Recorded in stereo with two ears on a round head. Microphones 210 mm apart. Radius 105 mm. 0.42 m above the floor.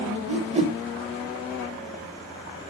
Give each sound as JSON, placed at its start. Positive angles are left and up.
{"t": 0.3, "sound": "a whoosh", "side_deg": -25, "distance_m": 1.4}